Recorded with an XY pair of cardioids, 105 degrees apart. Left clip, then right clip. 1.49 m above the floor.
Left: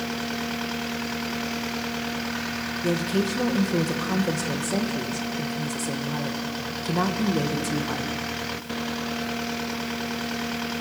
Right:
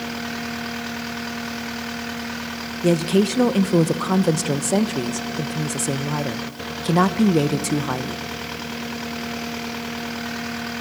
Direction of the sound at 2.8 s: 55° right.